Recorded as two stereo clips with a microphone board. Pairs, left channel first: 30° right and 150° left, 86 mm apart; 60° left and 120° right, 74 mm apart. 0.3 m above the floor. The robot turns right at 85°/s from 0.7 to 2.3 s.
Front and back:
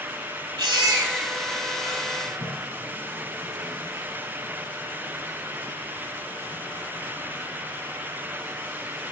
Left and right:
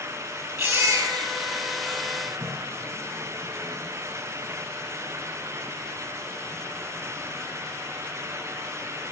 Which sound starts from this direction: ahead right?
A toilet flushing, at 2.2 s.